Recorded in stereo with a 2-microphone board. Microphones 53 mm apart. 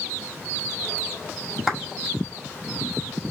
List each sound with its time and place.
1.7 s a clap: 10° right (ahead or behind), 1.8 m